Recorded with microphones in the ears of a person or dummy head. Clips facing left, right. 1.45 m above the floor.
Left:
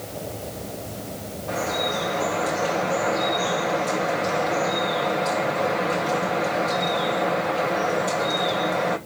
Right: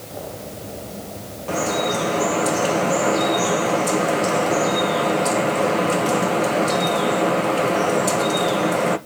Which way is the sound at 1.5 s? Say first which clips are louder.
Right 5 dB; 55° right (ahead or behind).